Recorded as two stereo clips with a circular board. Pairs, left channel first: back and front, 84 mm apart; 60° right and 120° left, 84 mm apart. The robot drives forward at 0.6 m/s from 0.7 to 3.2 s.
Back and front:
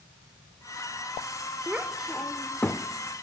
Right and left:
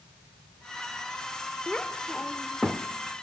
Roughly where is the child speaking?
Ahead.